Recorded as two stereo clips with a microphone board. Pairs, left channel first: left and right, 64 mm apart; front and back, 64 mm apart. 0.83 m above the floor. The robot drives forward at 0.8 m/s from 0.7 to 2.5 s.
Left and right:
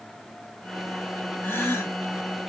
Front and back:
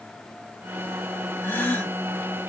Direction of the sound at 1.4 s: 40° left.